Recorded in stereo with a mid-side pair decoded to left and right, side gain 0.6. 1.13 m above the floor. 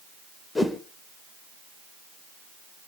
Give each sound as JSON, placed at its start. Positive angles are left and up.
{"t": 0.6, "sound": "a whoosh", "azimuth_deg": 20, "distance_m": 2.0}